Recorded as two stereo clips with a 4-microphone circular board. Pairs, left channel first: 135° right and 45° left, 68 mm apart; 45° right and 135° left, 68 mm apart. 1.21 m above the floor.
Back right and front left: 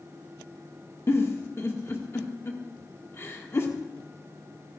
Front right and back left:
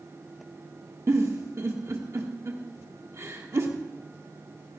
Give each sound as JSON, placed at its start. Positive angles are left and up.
{"t": 1.1, "sound": "a giggle", "azimuth_deg": 175, "distance_m": 1.5}